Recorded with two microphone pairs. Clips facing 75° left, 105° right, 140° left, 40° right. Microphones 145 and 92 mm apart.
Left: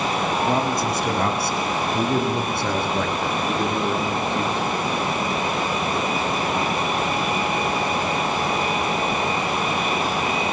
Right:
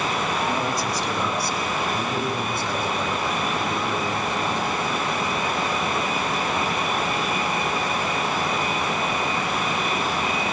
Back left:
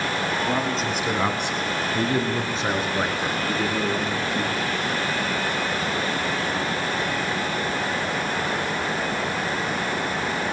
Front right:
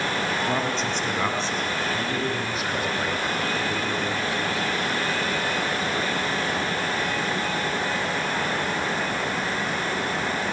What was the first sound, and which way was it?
A man speaking, 45° left.